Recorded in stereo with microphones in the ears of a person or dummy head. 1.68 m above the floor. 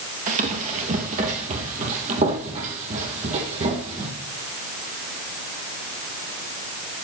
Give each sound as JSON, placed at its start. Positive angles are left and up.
{"t": 0.3, "sound": "running footsteps", "side_deg": -40, "distance_m": 2.5}